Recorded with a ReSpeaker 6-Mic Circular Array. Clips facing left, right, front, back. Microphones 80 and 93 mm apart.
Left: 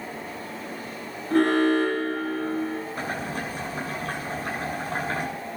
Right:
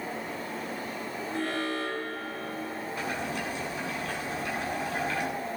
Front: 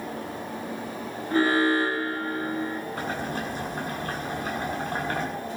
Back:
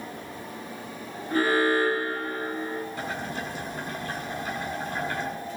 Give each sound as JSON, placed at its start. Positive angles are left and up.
{"t": 1.3, "sound": "an alarm", "azimuth_deg": 65, "distance_m": 9.5}
{"t": 3.0, "sound": "boiling", "azimuth_deg": 40, "distance_m": 9.0}